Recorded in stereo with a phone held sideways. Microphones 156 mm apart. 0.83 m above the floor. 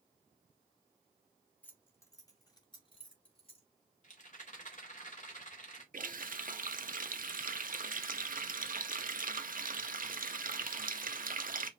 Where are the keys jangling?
10° left (ahead or behind), 1.3 m; by 3.7 s 40° left (ahead or behind), 2.0 m.